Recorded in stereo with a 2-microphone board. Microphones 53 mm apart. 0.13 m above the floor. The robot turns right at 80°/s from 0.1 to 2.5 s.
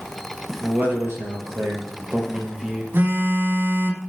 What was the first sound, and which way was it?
A man speaking, 155° right.